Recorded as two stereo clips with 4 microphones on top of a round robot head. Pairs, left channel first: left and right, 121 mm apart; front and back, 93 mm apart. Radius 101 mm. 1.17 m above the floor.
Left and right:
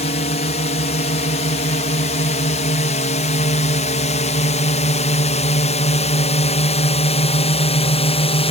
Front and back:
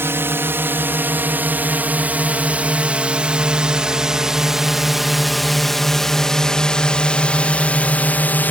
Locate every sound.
0.0 s a drone: 120° left; by 8.5 s 70° left